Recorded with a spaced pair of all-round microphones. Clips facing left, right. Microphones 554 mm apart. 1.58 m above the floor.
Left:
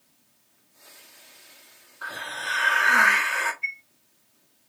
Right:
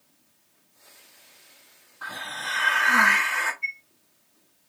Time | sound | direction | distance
2.0 | a hiss | 20° right (ahead or behind) | 1.2 m
3.6 | a chime | 15° left (ahead or behind) | 4.5 m